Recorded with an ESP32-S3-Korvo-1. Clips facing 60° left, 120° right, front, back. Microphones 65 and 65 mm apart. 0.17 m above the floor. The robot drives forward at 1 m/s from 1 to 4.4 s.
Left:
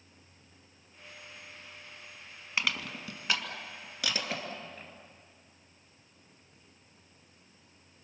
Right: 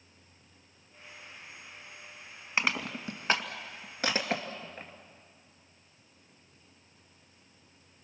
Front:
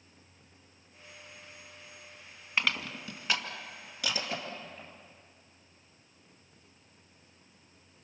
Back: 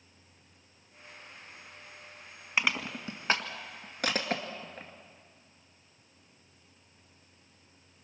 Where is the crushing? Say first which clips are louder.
Right 3 dB, back 1 dB; 115° right, 1.2 m; by 4.9 s 165° right, 2.5 m.